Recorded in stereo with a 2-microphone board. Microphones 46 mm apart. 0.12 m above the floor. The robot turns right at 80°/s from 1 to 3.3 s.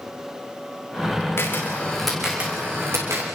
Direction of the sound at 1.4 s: 55° left (ahead or behind).